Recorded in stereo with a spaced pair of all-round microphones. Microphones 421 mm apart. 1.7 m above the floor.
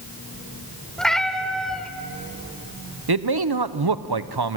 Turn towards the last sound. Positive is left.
turn(degrees=-60)  # may be behind; listen again after turning